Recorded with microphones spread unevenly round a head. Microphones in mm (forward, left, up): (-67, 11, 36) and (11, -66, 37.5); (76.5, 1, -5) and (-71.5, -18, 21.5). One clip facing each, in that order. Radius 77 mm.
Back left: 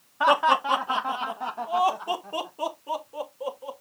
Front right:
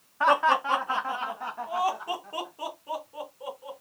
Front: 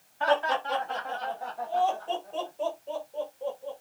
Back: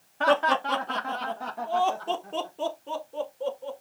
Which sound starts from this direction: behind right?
Laughter, at 0.2 s.